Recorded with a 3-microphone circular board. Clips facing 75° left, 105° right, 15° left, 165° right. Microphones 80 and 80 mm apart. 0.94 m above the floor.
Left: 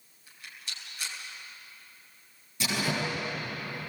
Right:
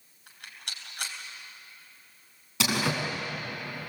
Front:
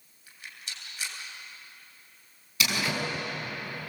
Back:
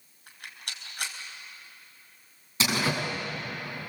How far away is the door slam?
About 6.5 m.